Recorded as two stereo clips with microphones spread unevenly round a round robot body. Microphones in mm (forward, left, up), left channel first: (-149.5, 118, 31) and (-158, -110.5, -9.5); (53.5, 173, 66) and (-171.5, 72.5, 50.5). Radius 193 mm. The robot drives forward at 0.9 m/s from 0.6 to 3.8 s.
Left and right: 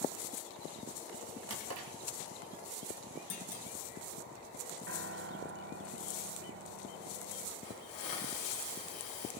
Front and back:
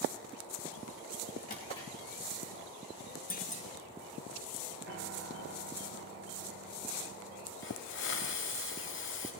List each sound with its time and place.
1.5 s a drawer: 45° right, 1.1 m; by 1.9 s 60° right, 0.9 m
3.3 s a clunk: 75° left, 1.9 m; by 3.6 s 90° left, 1.8 m
4.9 s a piano: 120° right, 1.2 m
7.6 s a hiss: 55° left, 2.5 m